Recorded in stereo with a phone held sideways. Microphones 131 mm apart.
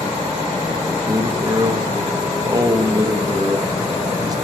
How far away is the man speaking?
About 0.6 m.